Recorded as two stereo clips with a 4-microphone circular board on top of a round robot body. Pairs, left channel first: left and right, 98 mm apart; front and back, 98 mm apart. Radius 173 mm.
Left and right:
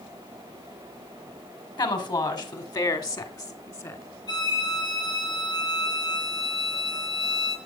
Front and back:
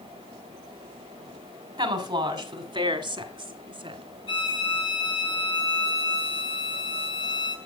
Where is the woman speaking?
135° left, 3 m; by 4.0 s 150° left, 2 m.